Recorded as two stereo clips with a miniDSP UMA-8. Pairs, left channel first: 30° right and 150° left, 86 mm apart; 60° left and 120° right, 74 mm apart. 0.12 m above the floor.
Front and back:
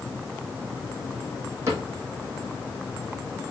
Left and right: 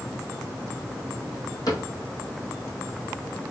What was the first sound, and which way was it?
A cupboard door, 95° left.